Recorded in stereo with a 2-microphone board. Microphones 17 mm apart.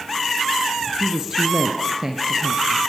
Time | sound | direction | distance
1.0 | a woman speaking | 25° right (ahead or behind) | 2.5 m